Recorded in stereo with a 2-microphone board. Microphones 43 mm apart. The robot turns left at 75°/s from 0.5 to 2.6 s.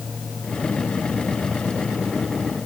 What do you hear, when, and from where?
Only background noise.